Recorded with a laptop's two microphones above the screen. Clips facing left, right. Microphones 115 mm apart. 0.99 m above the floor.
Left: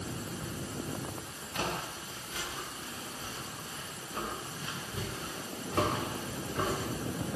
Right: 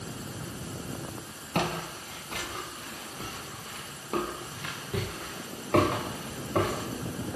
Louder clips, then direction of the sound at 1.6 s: Right 6 dB; 60° right (ahead or behind).